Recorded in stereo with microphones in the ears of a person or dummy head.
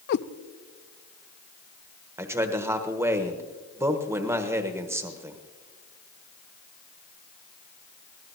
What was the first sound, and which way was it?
A cat meowing, 55° left (ahead or behind).